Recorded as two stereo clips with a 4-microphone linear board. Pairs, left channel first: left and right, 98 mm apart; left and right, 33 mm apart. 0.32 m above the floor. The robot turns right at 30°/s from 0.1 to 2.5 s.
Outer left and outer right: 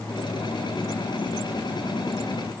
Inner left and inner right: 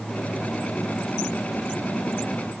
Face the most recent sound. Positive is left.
No sound to turn to.